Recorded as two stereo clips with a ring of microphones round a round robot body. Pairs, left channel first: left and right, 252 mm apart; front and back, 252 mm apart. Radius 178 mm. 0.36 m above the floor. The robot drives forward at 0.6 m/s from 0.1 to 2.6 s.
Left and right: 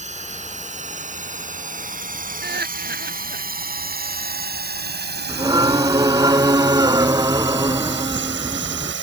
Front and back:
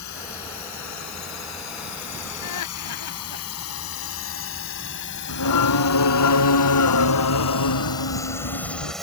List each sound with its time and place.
0.0 s a drone: 30° right; by 9.0 s 90° right
2.4 s laughter: 40° right
5.3 s singing: 15° right